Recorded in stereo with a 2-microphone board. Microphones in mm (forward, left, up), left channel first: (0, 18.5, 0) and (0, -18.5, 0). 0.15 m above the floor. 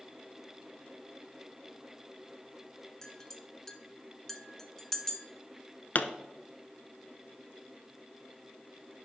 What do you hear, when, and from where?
3.0 s a clink: 10° left (ahead or behind), 0.8 m
6.0 s a pop: 50° left (ahead or behind), 0.7 m